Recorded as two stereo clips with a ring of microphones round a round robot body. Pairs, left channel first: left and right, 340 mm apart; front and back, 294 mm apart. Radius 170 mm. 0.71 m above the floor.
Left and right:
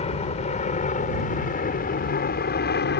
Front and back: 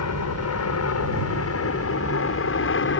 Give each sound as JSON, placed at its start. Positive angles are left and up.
{"t": 0.0, "sound": "an aircraft", "azimuth_deg": 20}